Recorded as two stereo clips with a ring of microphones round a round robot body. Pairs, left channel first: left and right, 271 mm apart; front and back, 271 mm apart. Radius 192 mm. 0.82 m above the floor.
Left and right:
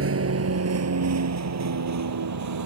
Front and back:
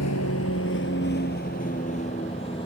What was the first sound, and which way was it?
A vehicle, 55° right.